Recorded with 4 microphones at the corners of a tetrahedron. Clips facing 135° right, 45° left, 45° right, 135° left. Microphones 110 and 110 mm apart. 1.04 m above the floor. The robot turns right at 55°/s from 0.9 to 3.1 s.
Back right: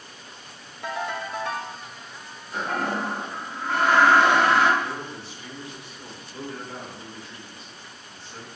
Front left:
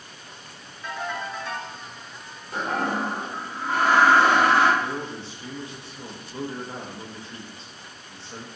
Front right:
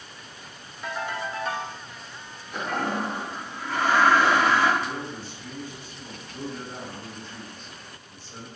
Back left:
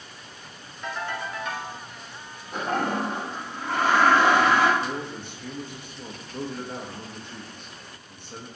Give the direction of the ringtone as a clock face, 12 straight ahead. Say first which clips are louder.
Back right 1 dB, front right 1 dB; 4 o'clock.